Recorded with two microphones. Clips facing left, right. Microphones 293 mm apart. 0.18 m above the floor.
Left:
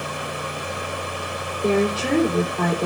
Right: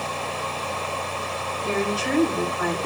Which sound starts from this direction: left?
A woman speaking, at 1.6 s.